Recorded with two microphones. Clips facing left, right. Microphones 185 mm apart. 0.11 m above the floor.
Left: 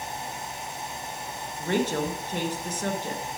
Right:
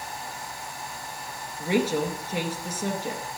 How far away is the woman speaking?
About 1.7 m.